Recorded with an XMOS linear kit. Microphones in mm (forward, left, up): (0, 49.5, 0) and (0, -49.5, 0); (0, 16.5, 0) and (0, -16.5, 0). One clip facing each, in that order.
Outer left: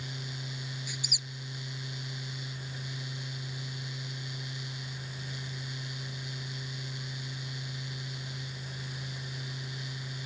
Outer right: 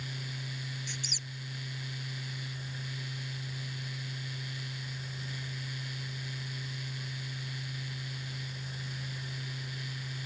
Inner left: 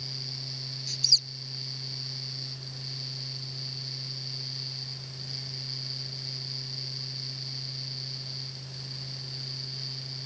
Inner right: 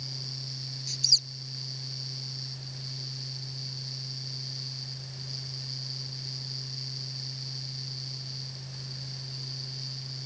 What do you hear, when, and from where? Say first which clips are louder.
0.9 s a squeak: outer left 1 dB, inner left 1 dB; 10° left (ahead or behind)